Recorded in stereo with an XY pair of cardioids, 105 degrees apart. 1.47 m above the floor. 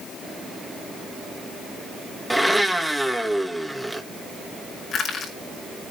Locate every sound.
2.3 s a blender: straight ahead, 1.9 m
4.9 s crushing: 50° left, 5.5 m